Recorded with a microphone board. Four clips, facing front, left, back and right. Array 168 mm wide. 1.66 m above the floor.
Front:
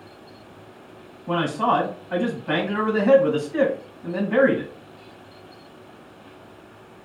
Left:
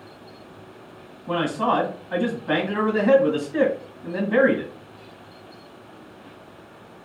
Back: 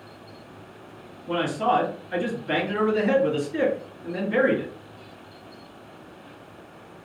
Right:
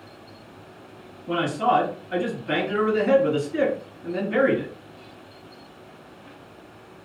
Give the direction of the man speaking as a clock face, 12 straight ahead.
11 o'clock.